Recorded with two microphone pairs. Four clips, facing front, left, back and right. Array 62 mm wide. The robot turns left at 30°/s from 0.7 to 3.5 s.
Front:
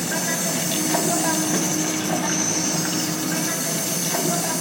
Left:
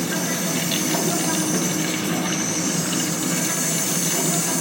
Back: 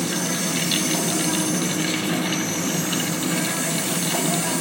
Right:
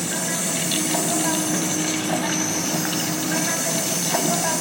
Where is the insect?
5° right, 2.5 m; by 4.6 s 85° right, 2.5 m.